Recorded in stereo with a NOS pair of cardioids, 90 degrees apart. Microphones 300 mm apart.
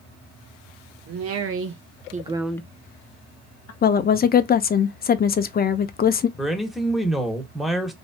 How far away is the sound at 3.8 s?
About 0.6 m.